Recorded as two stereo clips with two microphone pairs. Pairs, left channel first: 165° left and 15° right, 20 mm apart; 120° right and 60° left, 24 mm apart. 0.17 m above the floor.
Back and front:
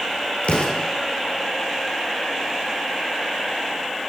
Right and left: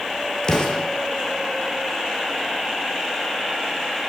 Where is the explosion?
Straight behind, 2 m.